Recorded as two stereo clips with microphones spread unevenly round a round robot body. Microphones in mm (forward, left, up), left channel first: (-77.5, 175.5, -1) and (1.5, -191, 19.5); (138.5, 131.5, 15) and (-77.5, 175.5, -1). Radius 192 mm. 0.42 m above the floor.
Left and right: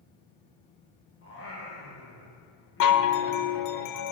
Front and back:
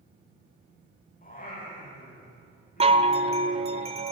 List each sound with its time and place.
1.2 s singing: 40° left, 5.5 m
2.8 s a chime: 115° left, 0.9 m